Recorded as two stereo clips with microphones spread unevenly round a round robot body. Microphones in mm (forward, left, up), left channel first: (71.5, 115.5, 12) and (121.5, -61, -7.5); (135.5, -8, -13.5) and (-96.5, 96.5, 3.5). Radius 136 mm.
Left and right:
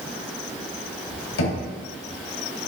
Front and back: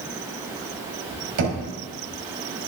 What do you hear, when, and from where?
1.4 s knocking: 125° left, 3.5 m